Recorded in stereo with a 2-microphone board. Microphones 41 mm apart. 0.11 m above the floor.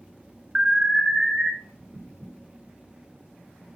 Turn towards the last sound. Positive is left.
turn(degrees=-15)  # may be behind; listen again after turning